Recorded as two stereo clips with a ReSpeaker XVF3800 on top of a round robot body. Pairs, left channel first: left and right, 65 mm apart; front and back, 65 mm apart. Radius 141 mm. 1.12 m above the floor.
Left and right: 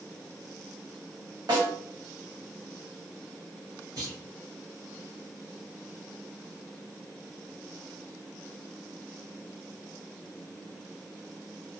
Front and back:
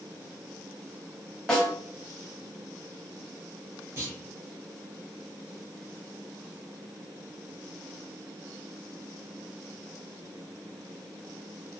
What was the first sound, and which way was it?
A snare drum, 75° right.